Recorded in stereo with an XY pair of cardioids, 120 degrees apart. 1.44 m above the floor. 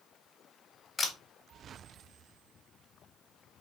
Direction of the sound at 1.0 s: 25° left.